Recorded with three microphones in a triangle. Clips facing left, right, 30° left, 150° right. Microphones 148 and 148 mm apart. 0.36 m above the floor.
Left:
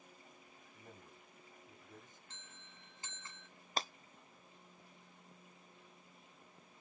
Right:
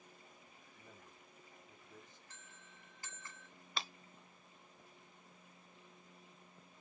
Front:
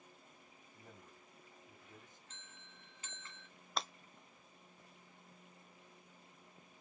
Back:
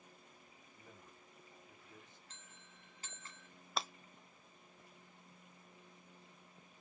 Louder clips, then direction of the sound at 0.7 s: Left 3 dB, front 1 dB; 60° left.